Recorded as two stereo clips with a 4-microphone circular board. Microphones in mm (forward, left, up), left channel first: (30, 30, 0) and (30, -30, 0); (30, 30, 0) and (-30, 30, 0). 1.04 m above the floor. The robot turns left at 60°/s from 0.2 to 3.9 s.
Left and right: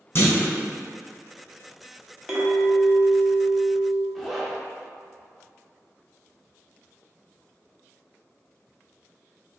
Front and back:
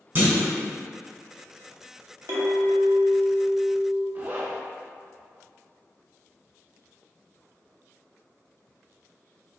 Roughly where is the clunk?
Behind left.